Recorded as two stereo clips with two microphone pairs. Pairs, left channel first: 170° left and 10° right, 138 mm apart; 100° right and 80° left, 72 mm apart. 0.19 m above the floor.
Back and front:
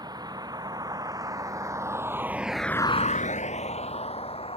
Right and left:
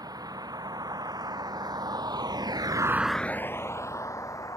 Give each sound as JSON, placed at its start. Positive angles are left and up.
{"t": 0.0, "sound": "a vehicle", "azimuth_deg": 50}